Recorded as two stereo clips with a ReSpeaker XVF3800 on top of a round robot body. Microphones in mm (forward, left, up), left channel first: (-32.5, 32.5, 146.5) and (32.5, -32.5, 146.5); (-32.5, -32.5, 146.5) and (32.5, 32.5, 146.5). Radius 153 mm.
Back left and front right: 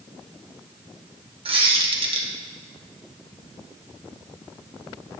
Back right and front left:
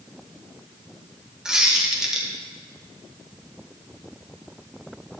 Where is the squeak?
40° right, 1.5 m.